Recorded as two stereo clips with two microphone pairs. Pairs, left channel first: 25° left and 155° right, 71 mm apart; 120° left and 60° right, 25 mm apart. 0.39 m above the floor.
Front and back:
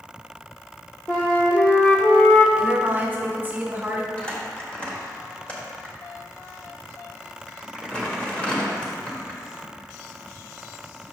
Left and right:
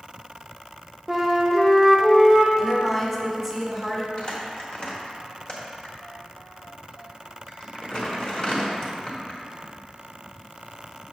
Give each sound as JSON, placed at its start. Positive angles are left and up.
{"t": 1.1, "sound": "a flute", "azimuth_deg": 10, "distance_m": 0.7}
{"t": 2.6, "sound": "a woman speaking", "azimuth_deg": -175, "distance_m": 1.2}
{"t": 4.2, "sound": "crumpling", "azimuth_deg": 90, "distance_m": 1.2}